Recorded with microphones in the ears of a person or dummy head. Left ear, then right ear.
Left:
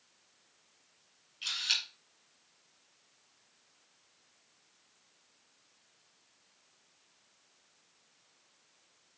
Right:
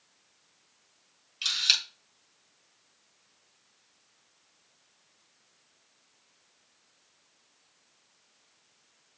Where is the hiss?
No hiss in this recording.